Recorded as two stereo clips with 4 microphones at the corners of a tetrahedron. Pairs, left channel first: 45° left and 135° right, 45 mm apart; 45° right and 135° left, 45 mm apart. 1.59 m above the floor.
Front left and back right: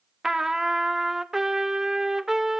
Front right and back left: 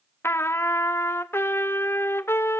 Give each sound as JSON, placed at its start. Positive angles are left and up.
{"t": 0.2, "sound": "a trumpet", "azimuth_deg": -55, "distance_m": 0.5}